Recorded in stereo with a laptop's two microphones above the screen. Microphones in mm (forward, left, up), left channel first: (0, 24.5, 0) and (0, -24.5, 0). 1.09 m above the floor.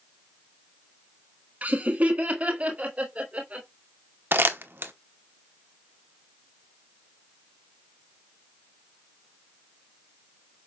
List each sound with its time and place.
1.6 s laughter: 35° right (ahead or behind), 1.1 m; by 3.7 s 30° right (ahead or behind), 3 m
4.3 s crumpling: 45° right (ahead or behind), 0.9 m